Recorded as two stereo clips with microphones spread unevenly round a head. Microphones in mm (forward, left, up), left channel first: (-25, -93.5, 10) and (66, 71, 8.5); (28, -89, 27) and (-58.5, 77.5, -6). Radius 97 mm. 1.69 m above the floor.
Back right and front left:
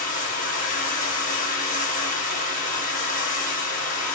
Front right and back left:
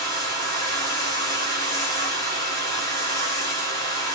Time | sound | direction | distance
0.0 | running water | 115° right | 1.2 m